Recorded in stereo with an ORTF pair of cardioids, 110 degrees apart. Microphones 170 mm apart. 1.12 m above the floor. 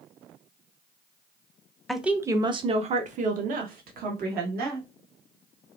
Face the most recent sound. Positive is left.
turn(degrees=-65)